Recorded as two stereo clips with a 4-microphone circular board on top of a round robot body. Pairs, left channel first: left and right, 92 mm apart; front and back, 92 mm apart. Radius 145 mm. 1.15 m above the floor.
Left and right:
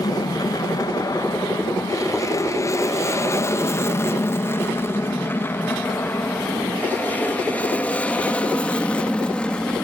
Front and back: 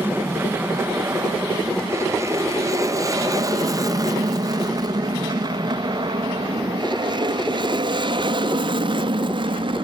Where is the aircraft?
120° left; by 9.8 s 170° left.